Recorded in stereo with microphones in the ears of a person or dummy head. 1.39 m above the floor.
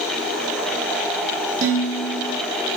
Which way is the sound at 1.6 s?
40° right (ahead or behind).